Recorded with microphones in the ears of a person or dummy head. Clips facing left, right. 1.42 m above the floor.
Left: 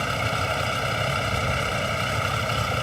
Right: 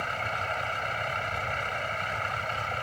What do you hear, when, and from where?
0.0 s a vehicle: 50° left (ahead or behind)